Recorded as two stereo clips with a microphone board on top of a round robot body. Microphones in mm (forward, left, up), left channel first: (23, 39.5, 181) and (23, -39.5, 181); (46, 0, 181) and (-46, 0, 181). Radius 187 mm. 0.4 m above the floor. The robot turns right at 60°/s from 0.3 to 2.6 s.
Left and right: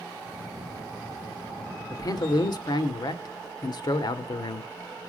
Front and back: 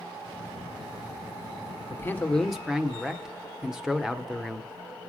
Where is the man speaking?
55° left, 1.5 m; by 4.7 s 95° left, 1.5 m.